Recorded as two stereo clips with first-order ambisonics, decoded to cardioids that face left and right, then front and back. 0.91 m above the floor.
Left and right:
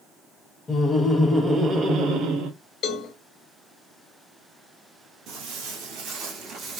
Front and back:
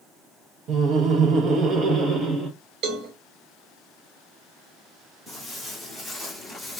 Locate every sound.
0.7 s laughter: 150° left, 0.8 m; by 2.5 s 110° right, 0.9 m
2.8 s a cowbell: 145° left, 0.9 m
5.3 s footsteps: 90° right, 1.5 m; by 6.8 s 80° right, 0.9 m